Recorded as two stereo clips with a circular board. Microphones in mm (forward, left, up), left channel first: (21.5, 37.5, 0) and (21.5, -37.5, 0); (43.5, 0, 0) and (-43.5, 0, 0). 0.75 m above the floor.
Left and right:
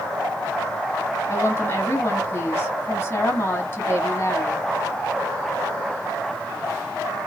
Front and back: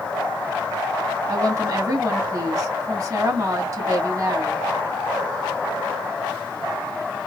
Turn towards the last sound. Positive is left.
turn(degrees=140)